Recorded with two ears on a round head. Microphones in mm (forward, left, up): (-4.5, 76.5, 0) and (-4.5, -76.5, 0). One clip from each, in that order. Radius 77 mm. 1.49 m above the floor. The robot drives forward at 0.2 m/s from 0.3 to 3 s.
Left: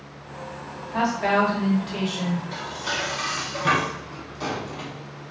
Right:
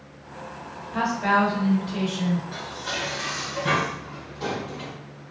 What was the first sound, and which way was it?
A woman speaking, 55° left (ahead or behind).